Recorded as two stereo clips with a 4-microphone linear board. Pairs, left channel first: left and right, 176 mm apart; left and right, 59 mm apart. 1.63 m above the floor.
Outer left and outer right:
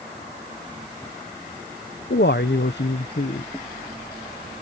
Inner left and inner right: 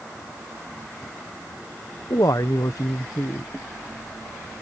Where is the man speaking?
70° left (ahead or behind); by 3.4 s 65° left (ahead or behind).